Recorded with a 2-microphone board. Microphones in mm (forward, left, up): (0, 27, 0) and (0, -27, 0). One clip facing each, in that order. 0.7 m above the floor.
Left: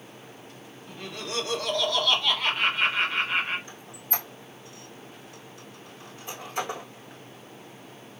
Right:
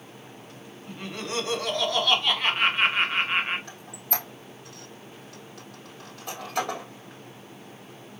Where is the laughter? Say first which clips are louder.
Right 2 dB; 25° right (ahead or behind), 1.2 m.